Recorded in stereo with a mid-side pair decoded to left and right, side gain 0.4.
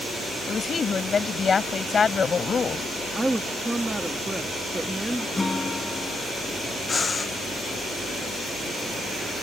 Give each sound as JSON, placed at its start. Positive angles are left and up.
{"t": 0.5, "sound": "a woman speaking", "azimuth_deg": 45}
{"t": 3.1, "sound": "a woman speaking", "azimuth_deg": -15}
{"t": 5.4, "sound": "a guitar", "azimuth_deg": 25}
{"t": 6.9, "sound": "breathing", "azimuth_deg": 40}